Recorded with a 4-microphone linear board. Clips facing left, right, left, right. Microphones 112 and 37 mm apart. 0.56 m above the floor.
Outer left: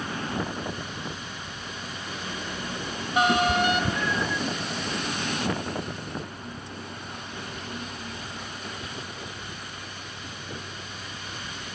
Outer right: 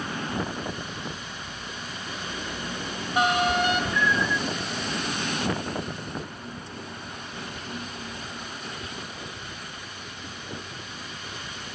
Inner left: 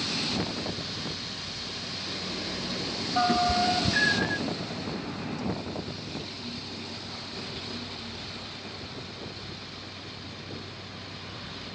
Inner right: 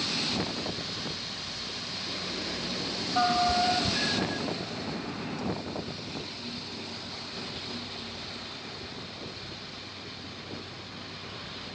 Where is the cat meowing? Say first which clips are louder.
Outer left 1 dB, inner left 2 dB; 55° left (ahead or behind), 0.8 m; by 4.4 s 35° left (ahead or behind), 0.8 m.